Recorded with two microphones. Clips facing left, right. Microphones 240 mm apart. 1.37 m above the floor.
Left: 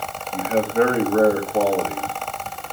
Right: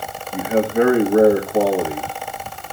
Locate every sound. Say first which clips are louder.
0.3 s a man speaking: right 2 dB; 15° right (ahead or behind), 1.9 m